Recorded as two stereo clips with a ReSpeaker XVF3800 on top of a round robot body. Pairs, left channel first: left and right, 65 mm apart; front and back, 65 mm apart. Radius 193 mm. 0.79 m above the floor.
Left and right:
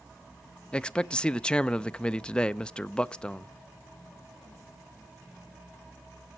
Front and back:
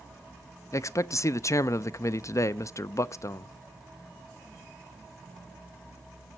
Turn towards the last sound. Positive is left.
turn(degrees=15)